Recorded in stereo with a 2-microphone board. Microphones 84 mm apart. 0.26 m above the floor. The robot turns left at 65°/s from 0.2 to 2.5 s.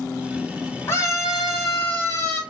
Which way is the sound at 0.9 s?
115° left.